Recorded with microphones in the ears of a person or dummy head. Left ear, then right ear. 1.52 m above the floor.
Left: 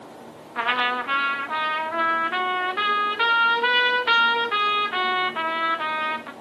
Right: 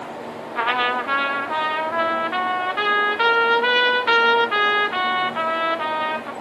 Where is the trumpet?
10° right (ahead or behind), 1.2 m.